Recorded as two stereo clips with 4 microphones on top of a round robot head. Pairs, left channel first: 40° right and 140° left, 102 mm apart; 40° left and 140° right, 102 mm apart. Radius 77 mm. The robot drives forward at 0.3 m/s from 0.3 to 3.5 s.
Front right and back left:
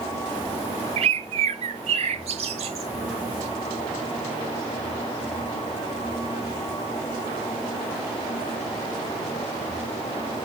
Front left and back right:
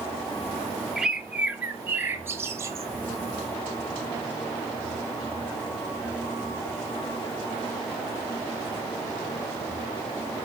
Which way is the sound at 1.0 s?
135° left.